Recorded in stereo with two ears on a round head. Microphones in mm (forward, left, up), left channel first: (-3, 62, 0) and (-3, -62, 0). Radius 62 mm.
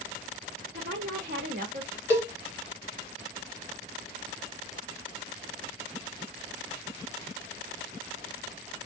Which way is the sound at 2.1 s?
20° right (ahead or behind).